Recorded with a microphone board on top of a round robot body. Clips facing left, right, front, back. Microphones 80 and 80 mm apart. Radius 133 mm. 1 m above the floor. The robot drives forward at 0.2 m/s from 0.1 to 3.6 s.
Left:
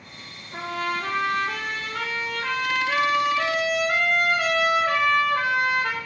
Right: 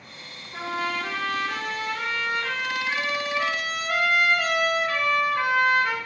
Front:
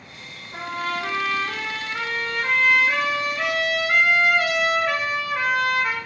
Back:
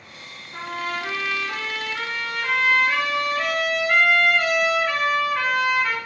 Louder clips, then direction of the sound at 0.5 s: Left 1 dB, front 1 dB; 50° left.